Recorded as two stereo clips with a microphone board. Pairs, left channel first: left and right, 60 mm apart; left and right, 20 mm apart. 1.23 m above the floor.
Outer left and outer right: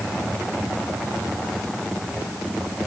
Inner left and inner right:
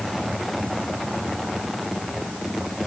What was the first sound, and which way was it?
Only background noise.